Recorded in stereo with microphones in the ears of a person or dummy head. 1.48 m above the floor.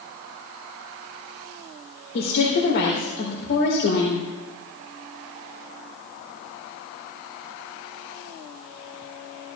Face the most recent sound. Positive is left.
turn(degrees=60)  # may be behind; listen again after turning